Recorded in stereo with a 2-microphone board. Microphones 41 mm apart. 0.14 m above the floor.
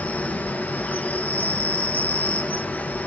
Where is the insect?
45° left (ahead or behind), 0.7 m.